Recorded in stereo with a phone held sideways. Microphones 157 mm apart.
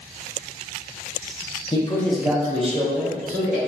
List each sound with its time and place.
1.7 s a man speaking: 30° left (ahead or behind), 0.7 m; by 3.6 s 65° right (ahead or behind), 1.3 m